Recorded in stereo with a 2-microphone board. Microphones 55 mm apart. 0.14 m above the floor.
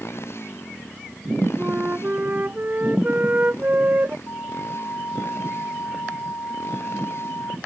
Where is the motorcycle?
55° left (ahead or behind); by 7.7 s 50° left (ahead or behind).